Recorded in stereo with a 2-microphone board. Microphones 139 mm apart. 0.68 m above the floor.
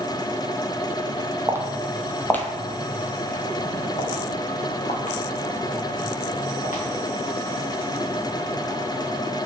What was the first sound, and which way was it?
Footsteps, 20° right (ahead or behind).